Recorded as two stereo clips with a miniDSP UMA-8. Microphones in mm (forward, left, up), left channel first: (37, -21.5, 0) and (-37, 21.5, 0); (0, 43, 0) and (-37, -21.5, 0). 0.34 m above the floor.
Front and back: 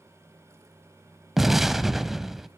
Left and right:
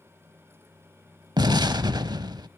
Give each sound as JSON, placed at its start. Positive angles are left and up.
{"t": 1.4, "sound": "an explosion", "azimuth_deg": -125, "distance_m": 0.6}